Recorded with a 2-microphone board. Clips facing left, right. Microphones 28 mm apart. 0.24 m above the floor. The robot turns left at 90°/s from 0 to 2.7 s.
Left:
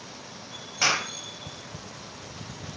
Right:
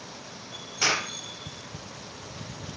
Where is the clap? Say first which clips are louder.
Left 1 dB; 10° left (ahead or behind), 5 m; by 1.1 s 15° right (ahead or behind), 5 m.